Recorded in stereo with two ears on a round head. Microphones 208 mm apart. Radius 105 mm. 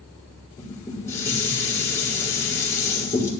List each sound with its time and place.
0.6 s dishes clattering: 15° left (ahead or behind), 5 m